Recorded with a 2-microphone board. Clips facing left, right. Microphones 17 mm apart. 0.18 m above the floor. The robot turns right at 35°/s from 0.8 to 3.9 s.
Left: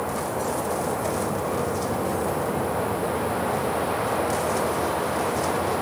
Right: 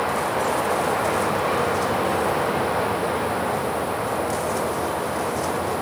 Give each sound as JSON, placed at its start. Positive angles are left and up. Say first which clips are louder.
{"t": 0.0, "sound": "running water", "louder": "right 5 dB", "azimuth_deg": -110}